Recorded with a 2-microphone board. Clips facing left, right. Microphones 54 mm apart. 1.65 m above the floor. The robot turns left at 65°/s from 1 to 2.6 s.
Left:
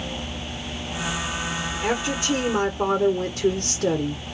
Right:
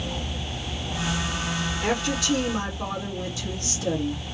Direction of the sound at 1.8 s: 175° left.